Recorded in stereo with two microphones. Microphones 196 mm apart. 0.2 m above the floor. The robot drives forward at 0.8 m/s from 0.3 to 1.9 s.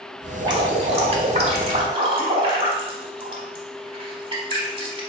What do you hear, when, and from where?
0.4 s dripping: 25° right (ahead or behind), 1.2 m; by 5.0 s 30° right (ahead or behind), 1.0 m